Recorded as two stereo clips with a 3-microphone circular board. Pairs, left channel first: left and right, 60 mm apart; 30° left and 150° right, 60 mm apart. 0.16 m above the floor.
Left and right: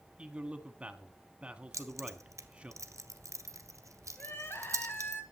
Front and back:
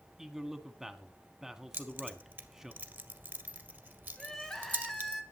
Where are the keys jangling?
100° right, 1.6 m.